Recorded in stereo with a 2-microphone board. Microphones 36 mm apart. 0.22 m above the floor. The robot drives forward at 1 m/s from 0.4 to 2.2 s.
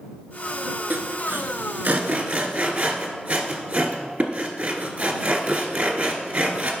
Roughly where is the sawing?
Right.